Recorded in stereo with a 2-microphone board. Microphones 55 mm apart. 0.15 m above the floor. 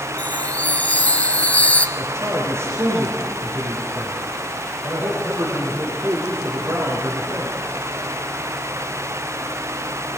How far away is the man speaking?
About 6 m.